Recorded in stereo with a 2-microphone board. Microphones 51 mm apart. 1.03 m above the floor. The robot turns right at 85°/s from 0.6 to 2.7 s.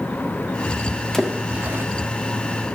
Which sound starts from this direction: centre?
A splash, at 1.1 s.